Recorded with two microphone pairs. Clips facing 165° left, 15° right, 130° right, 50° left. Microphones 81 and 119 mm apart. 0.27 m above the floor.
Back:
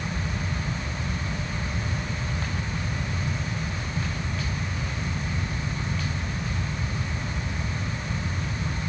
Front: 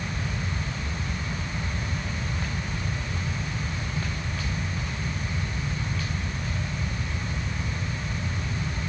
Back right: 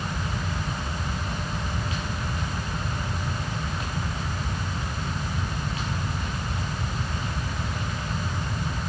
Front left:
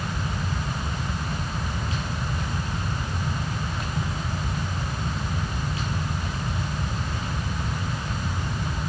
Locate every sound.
Only background noise.